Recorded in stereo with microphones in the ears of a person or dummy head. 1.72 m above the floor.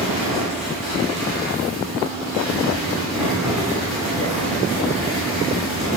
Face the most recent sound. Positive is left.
turn(degrees=-5)  # may be behind; listen again after turning